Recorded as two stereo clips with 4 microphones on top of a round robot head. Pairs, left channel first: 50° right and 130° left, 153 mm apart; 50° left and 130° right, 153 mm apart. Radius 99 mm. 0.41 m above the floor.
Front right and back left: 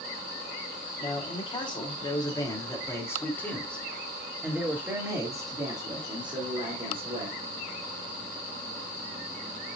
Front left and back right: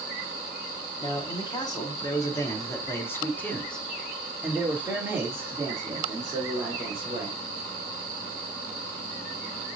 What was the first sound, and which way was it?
A man speaking, 5° right.